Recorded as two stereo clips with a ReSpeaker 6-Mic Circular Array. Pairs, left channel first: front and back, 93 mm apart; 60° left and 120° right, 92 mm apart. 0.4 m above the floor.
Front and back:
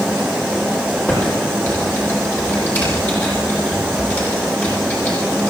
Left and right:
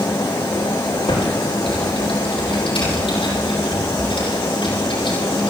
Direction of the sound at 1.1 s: 65° left.